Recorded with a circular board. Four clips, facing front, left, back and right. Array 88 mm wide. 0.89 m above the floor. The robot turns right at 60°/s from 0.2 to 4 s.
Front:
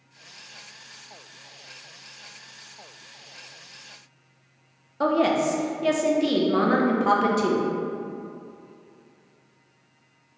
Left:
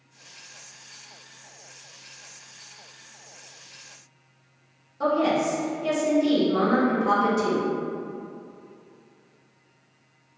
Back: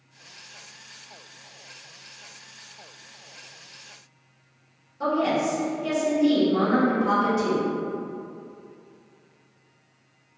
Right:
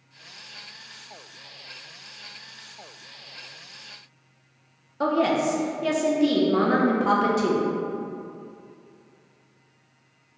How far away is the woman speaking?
About 0.6 m.